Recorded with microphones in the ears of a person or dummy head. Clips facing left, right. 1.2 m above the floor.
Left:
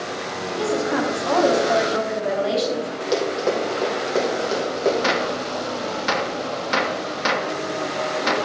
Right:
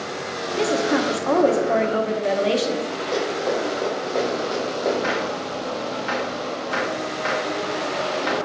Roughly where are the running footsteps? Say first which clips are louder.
Left 2 dB; left.